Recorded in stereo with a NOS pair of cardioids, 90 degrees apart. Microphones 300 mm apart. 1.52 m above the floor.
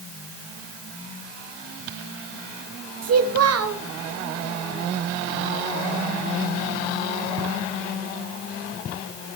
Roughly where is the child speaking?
Ahead right.